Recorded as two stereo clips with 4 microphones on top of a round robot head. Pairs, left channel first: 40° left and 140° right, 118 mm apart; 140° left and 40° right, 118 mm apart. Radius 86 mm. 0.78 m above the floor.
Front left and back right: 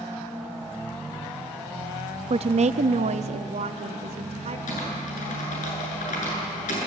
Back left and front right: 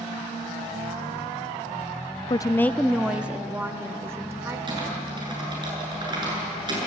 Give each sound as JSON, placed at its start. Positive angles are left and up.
{"t": 2.3, "sound": "a woman speaking", "azimuth_deg": -170, "distance_m": 0.7}
{"t": 4.7, "sound": "typing on a keyboard", "azimuth_deg": 20, "distance_m": 7.5}